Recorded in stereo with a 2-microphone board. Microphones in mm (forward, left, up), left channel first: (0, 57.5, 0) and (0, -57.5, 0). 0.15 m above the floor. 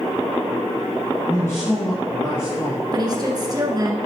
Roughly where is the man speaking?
Left.